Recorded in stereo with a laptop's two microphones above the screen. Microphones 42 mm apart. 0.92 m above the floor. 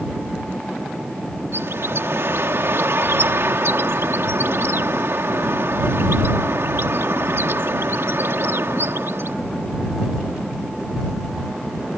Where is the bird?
75° right (ahead or behind).